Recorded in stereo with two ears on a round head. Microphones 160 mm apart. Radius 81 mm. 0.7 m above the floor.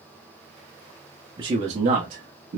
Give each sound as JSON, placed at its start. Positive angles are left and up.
{"t": 1.4, "sound": "a man speaking", "side_deg": -25, "distance_m": 0.8}